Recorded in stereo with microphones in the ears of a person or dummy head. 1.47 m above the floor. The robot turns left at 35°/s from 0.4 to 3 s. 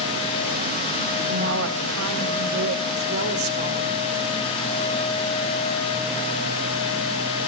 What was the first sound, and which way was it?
A woman speaking, 65° right.